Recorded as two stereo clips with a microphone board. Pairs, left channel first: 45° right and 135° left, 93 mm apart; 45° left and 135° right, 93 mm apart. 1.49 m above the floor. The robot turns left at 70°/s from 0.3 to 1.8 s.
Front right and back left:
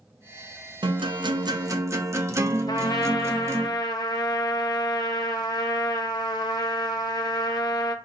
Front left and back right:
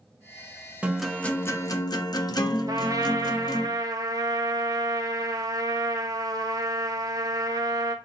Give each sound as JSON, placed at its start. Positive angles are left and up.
{"t": 0.8, "sound": "a guitar", "azimuth_deg": 150, "distance_m": 0.6}
{"t": 2.7, "sound": "a trumpet", "azimuth_deg": -85, "distance_m": 0.6}